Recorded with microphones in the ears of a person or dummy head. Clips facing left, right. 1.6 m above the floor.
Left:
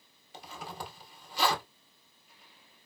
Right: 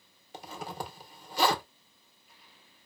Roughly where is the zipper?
Right.